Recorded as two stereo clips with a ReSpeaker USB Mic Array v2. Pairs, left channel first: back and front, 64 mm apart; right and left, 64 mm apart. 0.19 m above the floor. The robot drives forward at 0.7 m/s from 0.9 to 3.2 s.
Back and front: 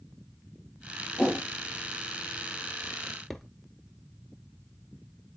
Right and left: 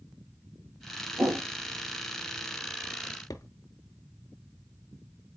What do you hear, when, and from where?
1.2 s a whoosh: 105° left, 3 m
3.0 s a drawer: 85° right, 0.8 m; by 3.5 s 90° right, 0.8 m